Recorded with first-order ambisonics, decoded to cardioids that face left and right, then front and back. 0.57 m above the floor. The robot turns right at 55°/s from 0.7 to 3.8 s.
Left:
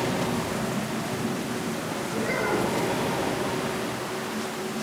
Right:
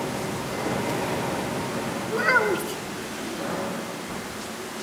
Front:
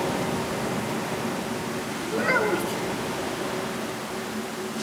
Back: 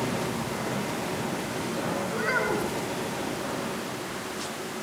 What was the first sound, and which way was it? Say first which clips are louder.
A child speaking: right 6 dB, front 5 dB; 100° right.